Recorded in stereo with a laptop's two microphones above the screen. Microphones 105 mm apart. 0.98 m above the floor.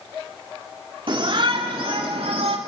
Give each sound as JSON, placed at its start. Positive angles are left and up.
{"t": 1.1, "sound": "a shout", "side_deg": -55, "distance_m": 2.5}